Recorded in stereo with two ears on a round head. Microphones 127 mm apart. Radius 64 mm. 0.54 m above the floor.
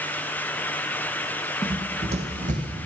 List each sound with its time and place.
1.6 s running footsteps: 30° right (ahead or behind), 1.5 m; by 2.8 s 60° right (ahead or behind), 2 m